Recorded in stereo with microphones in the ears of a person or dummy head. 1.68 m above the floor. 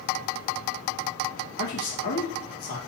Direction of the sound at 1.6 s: 65° left (ahead or behind).